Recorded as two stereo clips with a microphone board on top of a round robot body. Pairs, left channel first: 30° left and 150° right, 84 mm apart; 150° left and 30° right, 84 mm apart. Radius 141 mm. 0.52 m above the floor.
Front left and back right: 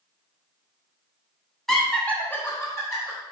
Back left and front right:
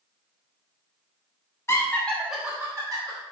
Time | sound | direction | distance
1.7 | laughter | 115° left | 1.3 m